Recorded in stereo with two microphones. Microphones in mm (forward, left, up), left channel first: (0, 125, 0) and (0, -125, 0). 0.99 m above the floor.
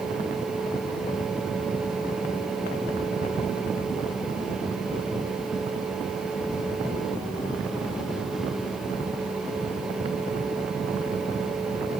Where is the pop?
No pop in this recording.